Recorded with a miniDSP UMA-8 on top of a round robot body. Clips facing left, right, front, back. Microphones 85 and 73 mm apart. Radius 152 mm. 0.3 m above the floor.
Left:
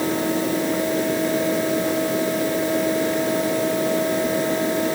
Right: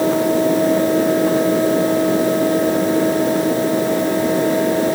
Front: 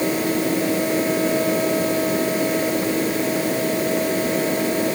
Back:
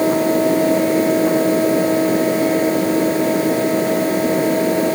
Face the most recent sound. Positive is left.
No sound to turn to.